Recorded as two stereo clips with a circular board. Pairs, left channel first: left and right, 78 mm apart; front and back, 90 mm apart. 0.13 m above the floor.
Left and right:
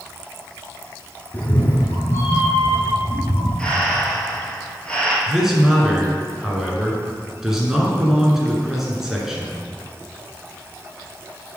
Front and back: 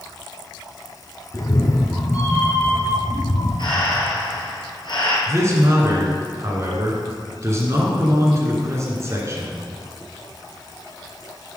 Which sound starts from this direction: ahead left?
A cat meowing, at 1.3 s.